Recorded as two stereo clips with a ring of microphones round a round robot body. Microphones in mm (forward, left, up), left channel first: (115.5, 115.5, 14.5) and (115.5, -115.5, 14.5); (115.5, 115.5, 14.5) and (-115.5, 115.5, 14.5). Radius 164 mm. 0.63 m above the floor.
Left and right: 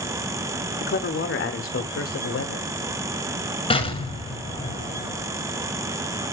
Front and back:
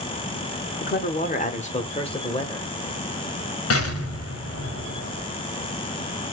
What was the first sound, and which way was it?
A man speaking, 45° left.